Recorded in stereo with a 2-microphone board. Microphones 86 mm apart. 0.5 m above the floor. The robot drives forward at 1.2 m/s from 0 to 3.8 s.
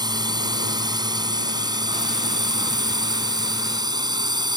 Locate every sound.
0.0 s a drone: 55° right (ahead or behind)